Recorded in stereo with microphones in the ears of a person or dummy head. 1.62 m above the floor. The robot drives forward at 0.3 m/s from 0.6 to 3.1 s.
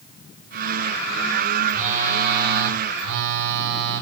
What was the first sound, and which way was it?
A phone buzzing, 45° right (ahead or behind).